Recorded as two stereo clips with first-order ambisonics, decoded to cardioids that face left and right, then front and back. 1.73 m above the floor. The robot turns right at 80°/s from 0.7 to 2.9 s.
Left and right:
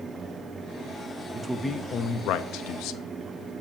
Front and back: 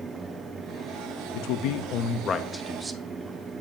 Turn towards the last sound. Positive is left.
turn(degrees=110)